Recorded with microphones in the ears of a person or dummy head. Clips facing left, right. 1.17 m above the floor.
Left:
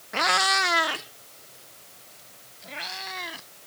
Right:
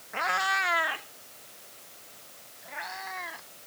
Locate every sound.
0.1 s a cat meowing: 40° left (ahead or behind); by 3.5 s 50° left (ahead or behind)